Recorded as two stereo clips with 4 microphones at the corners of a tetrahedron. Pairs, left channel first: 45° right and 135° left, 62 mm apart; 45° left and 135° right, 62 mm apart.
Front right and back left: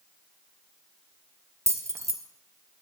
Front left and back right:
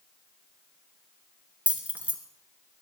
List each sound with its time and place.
1.7 s keys jangling: 160° left, 1.5 m